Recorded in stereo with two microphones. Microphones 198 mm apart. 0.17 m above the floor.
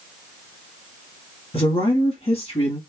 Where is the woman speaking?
30° left (ahead or behind), 1.4 m.